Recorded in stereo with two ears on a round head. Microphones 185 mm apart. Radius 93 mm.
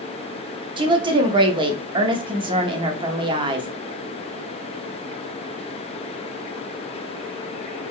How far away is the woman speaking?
About 0.7 m.